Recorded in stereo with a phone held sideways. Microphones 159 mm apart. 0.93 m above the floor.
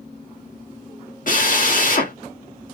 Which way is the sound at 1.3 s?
60° left (ahead or behind).